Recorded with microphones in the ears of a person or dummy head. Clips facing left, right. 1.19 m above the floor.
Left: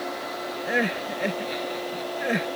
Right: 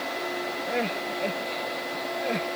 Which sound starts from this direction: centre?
Crying, at 0.7 s.